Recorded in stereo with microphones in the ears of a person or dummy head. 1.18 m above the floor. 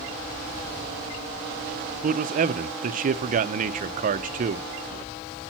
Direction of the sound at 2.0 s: 45° right (ahead or behind).